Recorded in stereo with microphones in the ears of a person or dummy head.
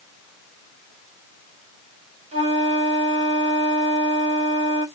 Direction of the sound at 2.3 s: 40° right (ahead or behind).